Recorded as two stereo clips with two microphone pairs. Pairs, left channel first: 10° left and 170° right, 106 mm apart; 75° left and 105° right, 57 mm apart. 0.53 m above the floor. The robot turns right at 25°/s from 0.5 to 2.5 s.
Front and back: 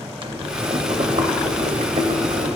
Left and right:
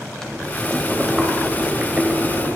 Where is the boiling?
150° left, 1.0 m; by 2.6 s 160° right, 1.0 m.